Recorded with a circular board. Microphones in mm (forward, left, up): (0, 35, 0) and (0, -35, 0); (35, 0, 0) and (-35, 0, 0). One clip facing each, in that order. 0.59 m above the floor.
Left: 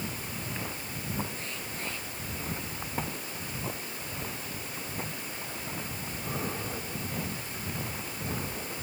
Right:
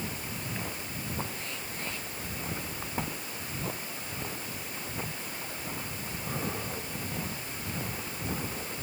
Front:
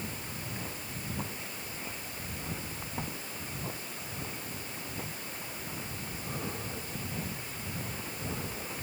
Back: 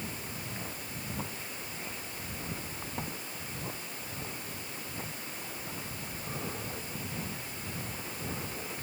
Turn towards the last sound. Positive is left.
No sound to turn to.